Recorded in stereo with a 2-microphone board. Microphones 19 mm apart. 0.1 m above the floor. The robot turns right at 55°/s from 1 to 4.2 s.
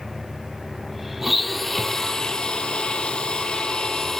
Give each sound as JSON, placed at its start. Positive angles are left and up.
{"t": 1.2, "sound": "a blender", "azimuth_deg": -10, "distance_m": 0.5}